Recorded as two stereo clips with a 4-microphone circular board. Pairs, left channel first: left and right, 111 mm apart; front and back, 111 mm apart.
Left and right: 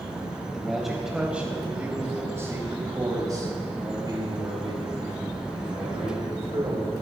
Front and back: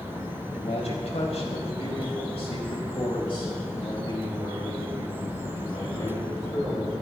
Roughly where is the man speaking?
Ahead.